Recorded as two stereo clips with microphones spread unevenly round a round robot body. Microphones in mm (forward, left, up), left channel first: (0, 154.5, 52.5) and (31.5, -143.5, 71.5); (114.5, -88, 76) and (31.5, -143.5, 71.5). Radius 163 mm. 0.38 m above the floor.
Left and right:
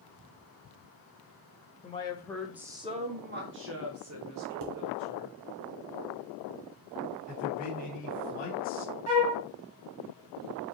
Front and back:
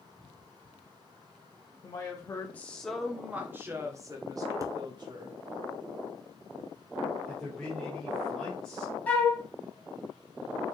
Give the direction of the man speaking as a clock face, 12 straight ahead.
8 o'clock.